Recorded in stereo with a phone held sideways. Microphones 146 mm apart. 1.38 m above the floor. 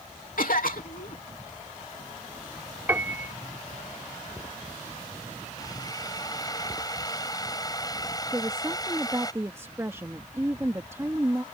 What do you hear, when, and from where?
0.4 s a cough: 75° left (ahead or behind)
2.9 s a piano: 15° right (ahead or behind)
5.6 s a drill: 25° left (ahead or behind)
8.3 s a woman speaking: 20° right (ahead or behind)